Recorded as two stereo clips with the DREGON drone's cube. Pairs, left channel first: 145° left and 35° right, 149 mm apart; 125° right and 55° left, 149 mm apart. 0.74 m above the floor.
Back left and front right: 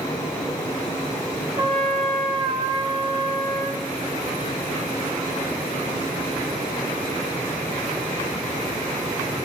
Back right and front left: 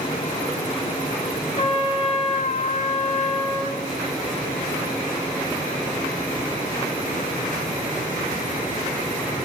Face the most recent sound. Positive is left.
turn(degrees=-90)